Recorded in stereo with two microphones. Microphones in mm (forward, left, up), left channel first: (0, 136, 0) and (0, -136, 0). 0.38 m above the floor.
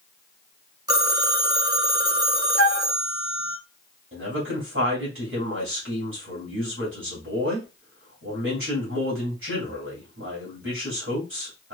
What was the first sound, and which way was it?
A phone ringing, 15° right (ahead or behind).